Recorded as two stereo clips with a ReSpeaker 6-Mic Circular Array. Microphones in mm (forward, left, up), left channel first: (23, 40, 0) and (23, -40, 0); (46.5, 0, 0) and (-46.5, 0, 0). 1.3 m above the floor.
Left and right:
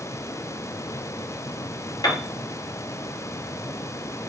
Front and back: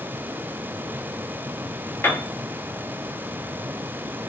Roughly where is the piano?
Ahead left.